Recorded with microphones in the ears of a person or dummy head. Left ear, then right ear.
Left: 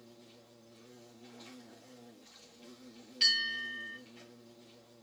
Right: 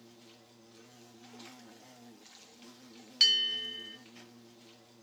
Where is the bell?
55° right (ahead or behind), 3.5 m.